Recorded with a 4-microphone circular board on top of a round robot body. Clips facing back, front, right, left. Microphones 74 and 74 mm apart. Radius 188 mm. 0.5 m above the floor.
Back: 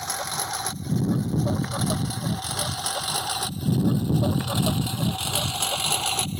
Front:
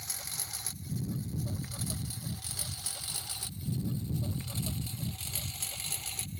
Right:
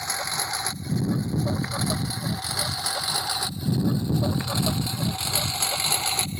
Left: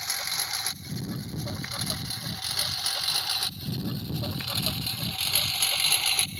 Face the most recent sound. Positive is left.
turn(degrees=-155)